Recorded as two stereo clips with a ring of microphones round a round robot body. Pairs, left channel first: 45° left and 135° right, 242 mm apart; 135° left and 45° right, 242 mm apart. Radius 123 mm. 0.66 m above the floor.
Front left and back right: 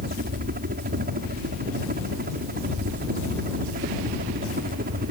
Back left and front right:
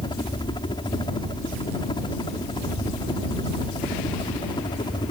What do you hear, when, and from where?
0.0 s a helicopter: 160° right